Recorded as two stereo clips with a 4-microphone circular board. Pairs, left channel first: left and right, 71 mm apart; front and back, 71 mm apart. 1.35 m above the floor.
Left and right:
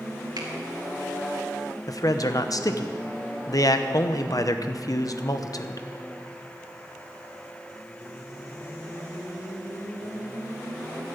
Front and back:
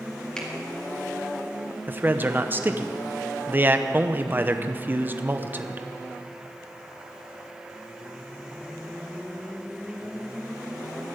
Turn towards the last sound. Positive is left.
turn(degrees=120)